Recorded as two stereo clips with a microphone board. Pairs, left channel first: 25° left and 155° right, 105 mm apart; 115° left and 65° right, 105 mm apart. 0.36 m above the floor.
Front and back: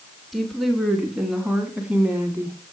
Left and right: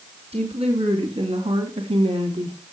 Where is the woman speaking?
65° right, 3.5 m; by 2.6 s 90° right, 2.5 m.